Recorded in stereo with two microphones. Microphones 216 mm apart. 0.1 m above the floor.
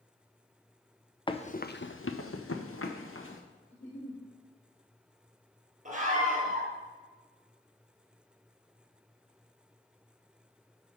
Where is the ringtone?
No ringtone in this recording.